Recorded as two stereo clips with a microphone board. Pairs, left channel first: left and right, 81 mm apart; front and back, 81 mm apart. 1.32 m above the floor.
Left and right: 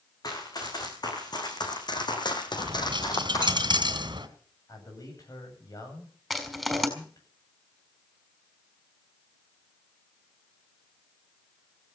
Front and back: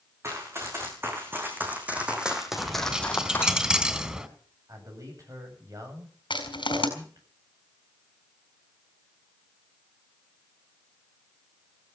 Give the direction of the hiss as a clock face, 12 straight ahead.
No hiss in this recording.